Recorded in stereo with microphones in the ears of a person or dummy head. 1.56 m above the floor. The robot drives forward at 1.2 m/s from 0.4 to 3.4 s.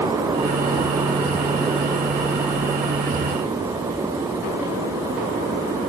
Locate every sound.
Only background noise.